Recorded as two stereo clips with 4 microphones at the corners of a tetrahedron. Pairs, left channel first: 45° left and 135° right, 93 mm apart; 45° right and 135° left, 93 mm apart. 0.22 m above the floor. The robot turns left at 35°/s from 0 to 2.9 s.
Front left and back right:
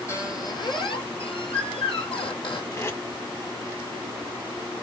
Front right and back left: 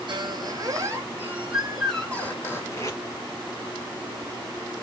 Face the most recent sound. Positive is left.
turn(degrees=-5)